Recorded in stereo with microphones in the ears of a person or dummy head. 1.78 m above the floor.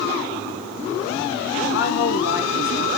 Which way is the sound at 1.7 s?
70° left (ahead or behind).